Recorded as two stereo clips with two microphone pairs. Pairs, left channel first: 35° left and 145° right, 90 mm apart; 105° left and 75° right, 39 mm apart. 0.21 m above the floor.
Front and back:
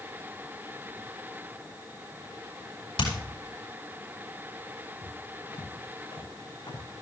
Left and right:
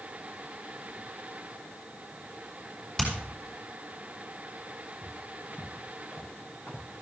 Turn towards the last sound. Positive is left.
turn(degrees=65)